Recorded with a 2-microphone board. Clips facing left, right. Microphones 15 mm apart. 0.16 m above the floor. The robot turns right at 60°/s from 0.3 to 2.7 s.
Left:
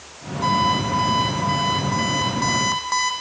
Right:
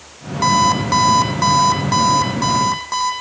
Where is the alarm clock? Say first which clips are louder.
Right 5 dB; 130° right, 3 m; by 3.1 s 5° left, 3 m.